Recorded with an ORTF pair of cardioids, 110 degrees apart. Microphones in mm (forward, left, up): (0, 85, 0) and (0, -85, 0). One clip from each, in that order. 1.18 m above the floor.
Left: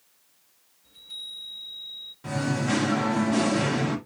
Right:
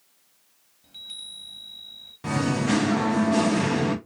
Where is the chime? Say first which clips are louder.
Even; 60° right, 2.0 m.